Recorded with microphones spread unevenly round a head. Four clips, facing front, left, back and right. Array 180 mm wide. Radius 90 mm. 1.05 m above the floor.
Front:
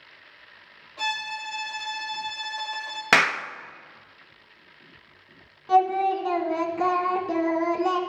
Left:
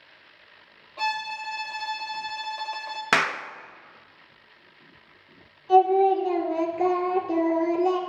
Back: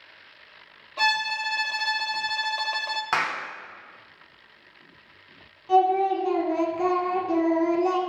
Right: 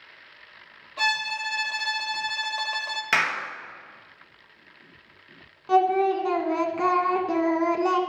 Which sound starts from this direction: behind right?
A violin, at 1.0 s.